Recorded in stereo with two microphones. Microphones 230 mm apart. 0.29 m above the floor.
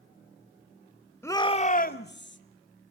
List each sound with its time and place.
1.2 s a shout: 10° left (ahead or behind), 1.0 m; by 2.4 s 55° left (ahead or behind), 1.5 m